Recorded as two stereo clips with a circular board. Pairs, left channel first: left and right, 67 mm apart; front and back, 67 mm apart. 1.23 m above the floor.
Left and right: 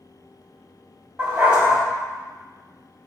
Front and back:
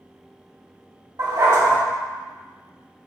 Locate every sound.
1.2 s a dog barking: 160° right, 3 m